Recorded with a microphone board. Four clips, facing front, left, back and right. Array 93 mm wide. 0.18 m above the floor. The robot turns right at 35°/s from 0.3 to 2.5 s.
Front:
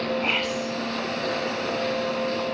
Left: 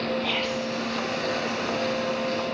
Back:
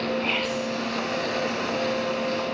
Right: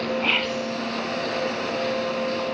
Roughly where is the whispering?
Right.